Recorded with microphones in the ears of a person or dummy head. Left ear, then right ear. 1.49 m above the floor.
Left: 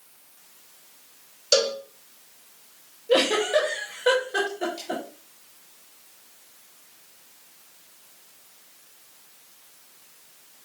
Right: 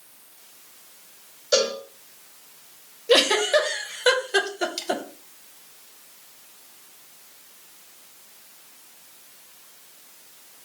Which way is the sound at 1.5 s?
80° left.